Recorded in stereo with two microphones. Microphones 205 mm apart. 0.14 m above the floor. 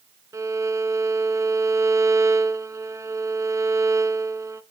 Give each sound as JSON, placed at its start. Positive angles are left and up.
{"t": 0.3, "sound": "a violin", "side_deg": -15, "distance_m": 0.5}